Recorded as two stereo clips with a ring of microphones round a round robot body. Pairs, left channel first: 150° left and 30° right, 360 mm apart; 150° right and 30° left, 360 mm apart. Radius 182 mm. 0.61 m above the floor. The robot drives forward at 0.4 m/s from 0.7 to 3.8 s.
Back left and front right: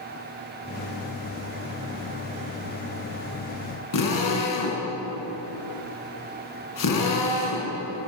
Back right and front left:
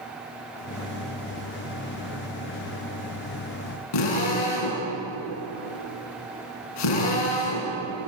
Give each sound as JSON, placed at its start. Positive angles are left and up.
{"t": 3.9, "sound": "a drill", "azimuth_deg": -170, "distance_m": 8.0}